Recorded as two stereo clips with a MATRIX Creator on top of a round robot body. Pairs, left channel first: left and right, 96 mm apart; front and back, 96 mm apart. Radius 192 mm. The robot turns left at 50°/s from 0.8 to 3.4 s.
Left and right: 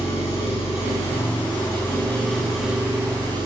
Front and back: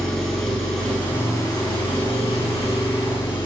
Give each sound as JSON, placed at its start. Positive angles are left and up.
{"t": 0.0, "sound": "an engine running", "azimuth_deg": 85, "distance_m": 6.5}